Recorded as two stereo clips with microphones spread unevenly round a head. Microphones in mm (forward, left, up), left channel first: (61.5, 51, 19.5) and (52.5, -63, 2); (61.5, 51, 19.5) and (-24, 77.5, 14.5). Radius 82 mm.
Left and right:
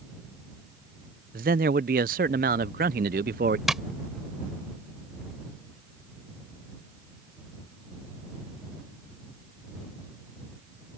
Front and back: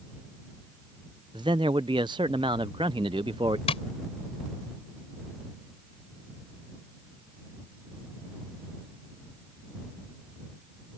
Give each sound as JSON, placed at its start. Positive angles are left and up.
{"t": 1.3, "sound": "a man speaking", "azimuth_deg": -130}
{"t": 3.7, "sound": "tapping", "azimuth_deg": -5}